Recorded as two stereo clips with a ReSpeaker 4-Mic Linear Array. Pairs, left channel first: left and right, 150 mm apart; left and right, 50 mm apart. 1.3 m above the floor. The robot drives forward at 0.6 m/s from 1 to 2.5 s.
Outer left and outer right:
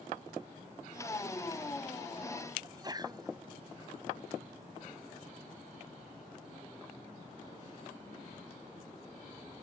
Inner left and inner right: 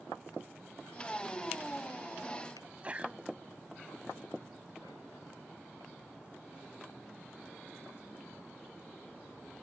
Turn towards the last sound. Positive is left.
turn(degrees=-25)  # may be behind; listen again after turning